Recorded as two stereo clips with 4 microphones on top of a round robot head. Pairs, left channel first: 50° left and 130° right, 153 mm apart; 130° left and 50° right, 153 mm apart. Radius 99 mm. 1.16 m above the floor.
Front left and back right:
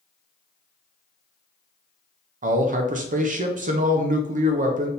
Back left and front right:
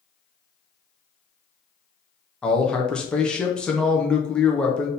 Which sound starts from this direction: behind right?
A man speaking, at 2.4 s.